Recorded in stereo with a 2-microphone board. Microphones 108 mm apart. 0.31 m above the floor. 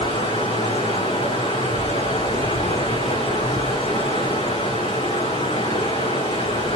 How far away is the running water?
About 8.5 m.